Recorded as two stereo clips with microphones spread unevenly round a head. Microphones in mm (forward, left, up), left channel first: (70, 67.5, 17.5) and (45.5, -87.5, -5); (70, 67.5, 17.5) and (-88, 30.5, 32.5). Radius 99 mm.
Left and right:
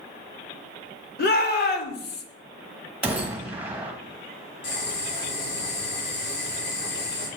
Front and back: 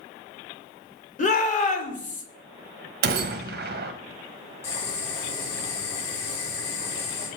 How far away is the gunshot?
About 0.9 m.